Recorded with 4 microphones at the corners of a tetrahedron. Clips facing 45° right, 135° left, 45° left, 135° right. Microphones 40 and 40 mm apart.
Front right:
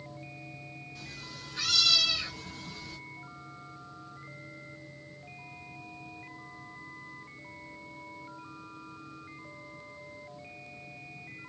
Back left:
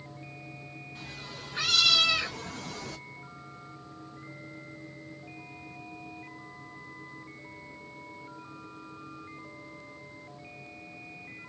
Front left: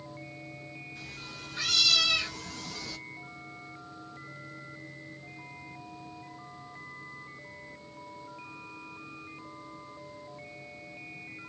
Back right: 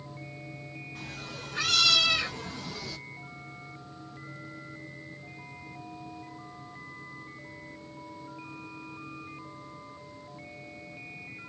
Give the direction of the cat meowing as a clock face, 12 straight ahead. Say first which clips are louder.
Back left 2 dB, back right 3 dB; 6 o'clock.